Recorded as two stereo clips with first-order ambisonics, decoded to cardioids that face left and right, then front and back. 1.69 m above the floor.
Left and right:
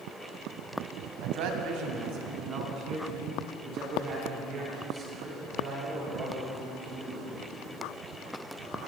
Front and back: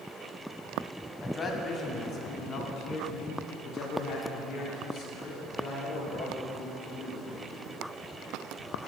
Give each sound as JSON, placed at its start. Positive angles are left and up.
{"t": 1.2, "sound": "a man speaking", "azimuth_deg": -75, "distance_m": 1.3}